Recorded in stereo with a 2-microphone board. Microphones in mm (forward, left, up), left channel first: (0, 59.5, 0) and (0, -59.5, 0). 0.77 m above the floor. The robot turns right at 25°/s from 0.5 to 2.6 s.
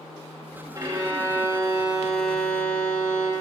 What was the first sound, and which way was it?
A violin, 35° right.